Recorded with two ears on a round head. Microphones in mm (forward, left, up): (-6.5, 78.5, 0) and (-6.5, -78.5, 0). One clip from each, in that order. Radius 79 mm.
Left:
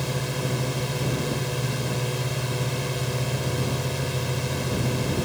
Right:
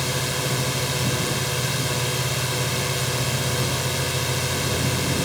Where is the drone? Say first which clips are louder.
Right 4 dB; 40° right (ahead or behind).